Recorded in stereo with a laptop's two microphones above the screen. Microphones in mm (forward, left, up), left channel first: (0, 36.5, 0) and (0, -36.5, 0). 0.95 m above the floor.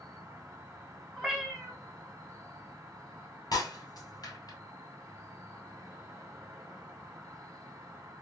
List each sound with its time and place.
0.0 s an insect: 50° right (ahead or behind), 1.1 m
1.2 s a cat meowing: 5° right (ahead or behind), 0.9 m
3.5 s breaking glass: 60° left (ahead or behind), 1.7 m